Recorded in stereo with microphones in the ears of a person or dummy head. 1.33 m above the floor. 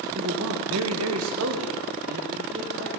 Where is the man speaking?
65° right (ahead or behind), 1.6 m; by 2.9 s 55° right (ahead or behind), 3 m.